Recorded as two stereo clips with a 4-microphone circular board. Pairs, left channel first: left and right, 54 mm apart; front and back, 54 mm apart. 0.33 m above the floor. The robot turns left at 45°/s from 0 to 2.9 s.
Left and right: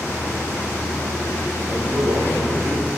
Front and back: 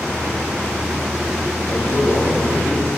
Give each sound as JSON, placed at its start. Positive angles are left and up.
{"t": 1.7, "sound": "a man speaking", "azimuth_deg": -15, "distance_m": 8.5}